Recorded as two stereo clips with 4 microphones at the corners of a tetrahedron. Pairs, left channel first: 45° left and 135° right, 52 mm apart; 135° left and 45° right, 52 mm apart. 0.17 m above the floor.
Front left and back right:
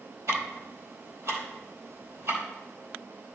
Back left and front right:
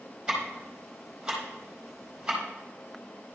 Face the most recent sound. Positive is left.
turn(degrees=-120)